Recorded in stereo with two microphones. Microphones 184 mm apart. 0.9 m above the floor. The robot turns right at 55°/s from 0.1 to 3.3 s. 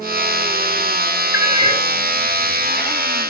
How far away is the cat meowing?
About 3 m.